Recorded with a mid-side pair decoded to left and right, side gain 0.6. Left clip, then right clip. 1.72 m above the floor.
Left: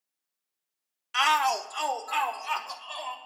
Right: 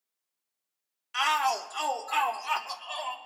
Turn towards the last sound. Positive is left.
turn(degrees=-5)